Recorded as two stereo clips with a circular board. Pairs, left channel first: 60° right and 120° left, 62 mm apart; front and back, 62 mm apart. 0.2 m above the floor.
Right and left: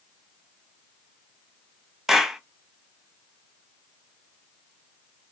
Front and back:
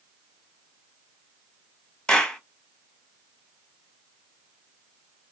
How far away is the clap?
About 0.8 m.